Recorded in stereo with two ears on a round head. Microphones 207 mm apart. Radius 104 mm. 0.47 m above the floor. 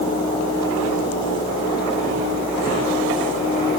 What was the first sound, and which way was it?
Only background noise.